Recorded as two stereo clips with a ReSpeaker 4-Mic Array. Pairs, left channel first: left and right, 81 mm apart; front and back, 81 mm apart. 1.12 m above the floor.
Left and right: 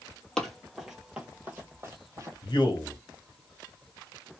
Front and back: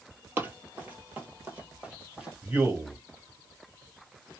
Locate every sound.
0.4 s running footsteps: 165° left, 1.2 m; by 2.3 s 105° right, 1.4 m
2.4 s a man speaking: 110° left, 1.3 m